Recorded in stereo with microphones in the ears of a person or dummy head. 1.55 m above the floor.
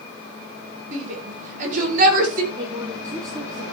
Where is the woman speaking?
20° right (ahead or behind), 2.5 m.